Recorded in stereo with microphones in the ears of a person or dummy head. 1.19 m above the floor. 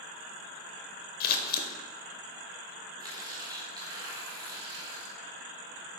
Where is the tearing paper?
25° right (ahead or behind), 1.2 m.